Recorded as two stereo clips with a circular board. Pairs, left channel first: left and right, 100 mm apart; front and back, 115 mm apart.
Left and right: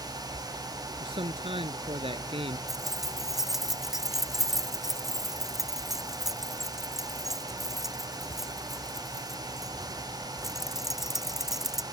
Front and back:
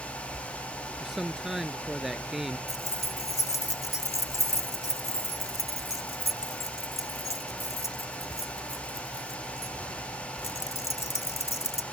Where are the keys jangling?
10° right.